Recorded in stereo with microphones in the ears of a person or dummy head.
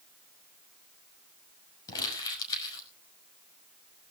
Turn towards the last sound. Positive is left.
turn(degrees=25)  # may be behind; listen again after turning